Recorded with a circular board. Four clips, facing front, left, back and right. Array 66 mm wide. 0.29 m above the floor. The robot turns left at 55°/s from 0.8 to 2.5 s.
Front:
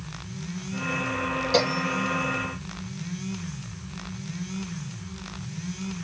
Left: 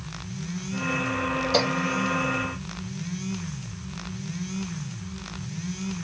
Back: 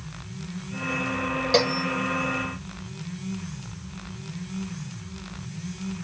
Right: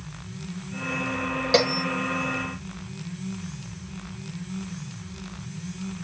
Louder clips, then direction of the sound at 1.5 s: Right 4 dB, back 1 dB; 110° right.